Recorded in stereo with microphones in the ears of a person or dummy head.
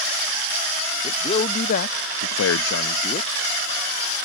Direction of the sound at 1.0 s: 30° left (ahead or behind).